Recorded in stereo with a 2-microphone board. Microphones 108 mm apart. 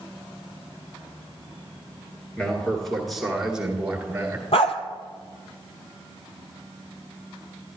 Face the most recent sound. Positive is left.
turn(degrees=65)  # may be behind; listen again after turning